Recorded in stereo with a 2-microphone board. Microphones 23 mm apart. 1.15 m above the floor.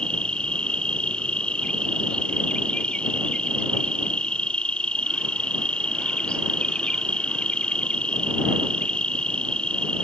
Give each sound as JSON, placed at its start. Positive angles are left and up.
{"t": 0.0, "sound": "an insect", "side_deg": 55}